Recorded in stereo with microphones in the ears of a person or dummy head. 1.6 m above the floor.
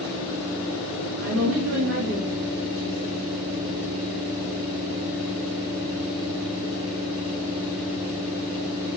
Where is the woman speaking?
65° right (ahead or behind), 4 m.